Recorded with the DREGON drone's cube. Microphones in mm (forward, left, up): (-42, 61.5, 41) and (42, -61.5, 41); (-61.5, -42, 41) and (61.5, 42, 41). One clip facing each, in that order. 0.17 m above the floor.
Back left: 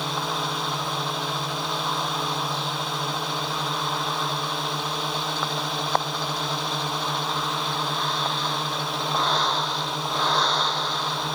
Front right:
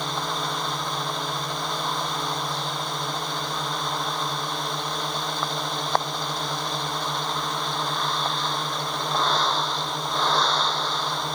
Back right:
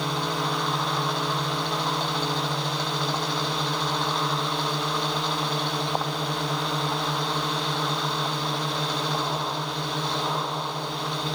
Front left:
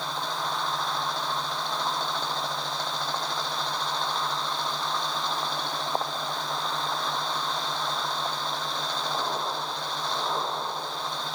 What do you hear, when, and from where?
0.0 s a drone: 150° right